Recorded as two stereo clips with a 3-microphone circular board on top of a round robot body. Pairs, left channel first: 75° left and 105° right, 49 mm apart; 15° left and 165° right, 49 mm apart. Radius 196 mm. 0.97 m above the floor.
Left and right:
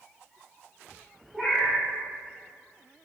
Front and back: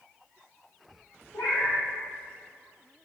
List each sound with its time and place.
1.3 s a cat meowing: 5° right, 0.7 m